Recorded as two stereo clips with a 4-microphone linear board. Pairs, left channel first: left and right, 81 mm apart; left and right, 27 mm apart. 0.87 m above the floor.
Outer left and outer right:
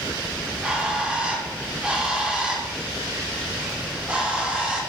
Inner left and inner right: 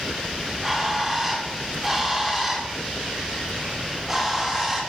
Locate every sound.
0.4 s a bird: 15° right (ahead or behind), 2.5 m